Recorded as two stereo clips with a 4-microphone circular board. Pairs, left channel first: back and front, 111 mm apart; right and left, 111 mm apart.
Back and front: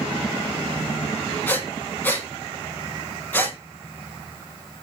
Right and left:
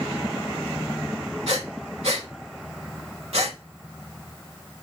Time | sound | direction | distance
1.5 | breathing | 110° left | 0.7 m